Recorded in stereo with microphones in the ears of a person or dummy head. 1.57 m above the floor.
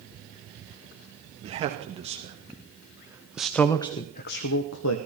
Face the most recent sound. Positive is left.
turn(degrees=80)